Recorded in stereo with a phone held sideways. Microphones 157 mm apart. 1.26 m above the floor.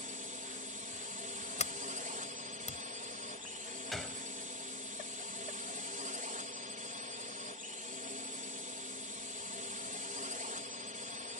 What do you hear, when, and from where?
0.0 s a drone: 55° right (ahead or behind)
1.6 s a sliding door: 45° left (ahead or behind)
3.9 s a gunshot: centre (ahead or behind)